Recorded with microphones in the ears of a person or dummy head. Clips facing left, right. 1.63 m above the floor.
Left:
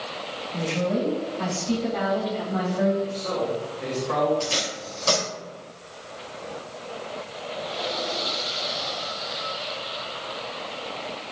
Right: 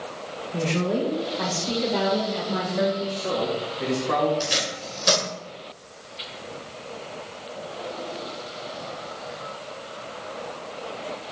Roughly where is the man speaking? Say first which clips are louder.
Even; right.